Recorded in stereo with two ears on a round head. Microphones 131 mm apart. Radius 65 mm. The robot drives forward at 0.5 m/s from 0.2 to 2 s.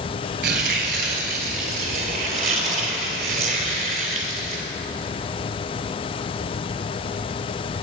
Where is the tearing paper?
80° right, 2.0 m; by 4.7 s 60° right (ahead or behind), 2 m.